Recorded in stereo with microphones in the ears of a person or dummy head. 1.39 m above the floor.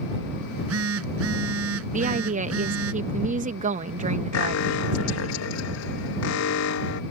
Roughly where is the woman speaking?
Right.